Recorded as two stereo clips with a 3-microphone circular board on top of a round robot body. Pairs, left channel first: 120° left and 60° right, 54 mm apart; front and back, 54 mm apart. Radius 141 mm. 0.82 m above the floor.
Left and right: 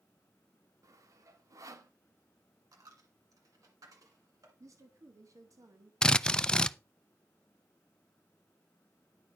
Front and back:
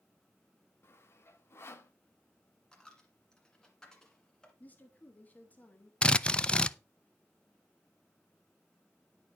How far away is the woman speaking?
About 1.7 m.